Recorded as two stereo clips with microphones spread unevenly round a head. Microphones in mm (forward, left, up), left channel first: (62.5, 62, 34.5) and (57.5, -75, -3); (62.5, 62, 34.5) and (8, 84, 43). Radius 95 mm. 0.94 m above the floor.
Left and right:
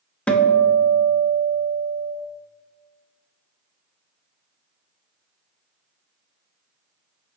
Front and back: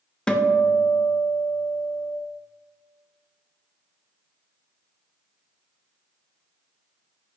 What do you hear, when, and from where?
0.3 s a guitar: 20° right, 0.8 m